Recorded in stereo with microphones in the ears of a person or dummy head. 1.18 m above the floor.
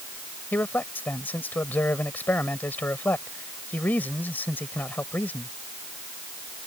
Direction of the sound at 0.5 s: 10° left (ahead or behind).